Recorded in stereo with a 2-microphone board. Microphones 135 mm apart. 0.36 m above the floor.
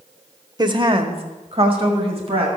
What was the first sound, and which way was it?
A woman speaking, 30° right (ahead or behind).